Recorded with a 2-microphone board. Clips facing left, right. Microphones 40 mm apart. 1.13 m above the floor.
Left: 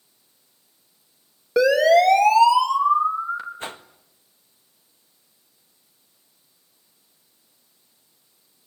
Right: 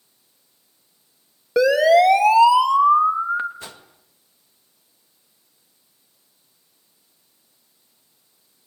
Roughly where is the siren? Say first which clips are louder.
Right 1 dB; centre.